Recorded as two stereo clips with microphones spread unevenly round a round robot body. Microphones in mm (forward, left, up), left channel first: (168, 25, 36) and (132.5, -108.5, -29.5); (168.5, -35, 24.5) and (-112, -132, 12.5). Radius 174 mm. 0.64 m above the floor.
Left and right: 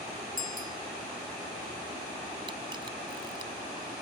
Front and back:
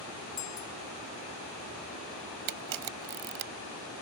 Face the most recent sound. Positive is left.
turn(degrees=170)